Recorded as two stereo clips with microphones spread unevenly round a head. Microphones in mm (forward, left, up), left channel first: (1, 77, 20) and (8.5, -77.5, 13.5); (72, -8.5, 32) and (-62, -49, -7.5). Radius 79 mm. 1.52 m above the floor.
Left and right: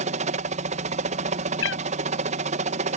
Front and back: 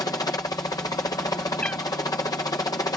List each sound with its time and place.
0.0 s a helicopter: 55° right
1.6 s a cat meowing: 100° left